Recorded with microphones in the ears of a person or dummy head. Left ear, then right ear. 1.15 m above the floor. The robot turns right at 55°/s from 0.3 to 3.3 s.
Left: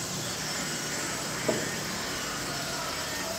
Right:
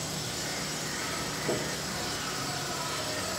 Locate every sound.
0.0 s an insect: 55° left, 2 m; by 3.4 s 140° right, 2 m
1.5 s knocking: 40° left (ahead or behind), 0.8 m; by 1.7 s 55° left (ahead or behind), 0.8 m